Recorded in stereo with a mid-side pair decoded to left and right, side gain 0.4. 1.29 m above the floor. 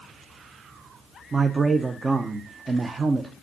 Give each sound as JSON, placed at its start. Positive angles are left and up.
{"t": 1.3, "sound": "a man speaking", "azimuth_deg": -35, "distance_m": 0.6}